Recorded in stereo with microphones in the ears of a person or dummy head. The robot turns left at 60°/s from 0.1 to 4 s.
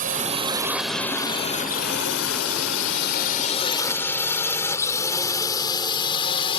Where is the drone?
40° right (ahead or behind); by 6.6 s 25° left (ahead or behind).